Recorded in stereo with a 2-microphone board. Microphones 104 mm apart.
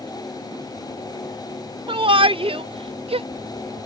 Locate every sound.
1.9 s a shout: 55° right (ahead or behind); by 3.3 s 65° right (ahead or behind)